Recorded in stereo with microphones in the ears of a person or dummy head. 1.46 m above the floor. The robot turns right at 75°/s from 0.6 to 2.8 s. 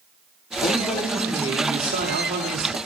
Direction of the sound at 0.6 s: 135° left.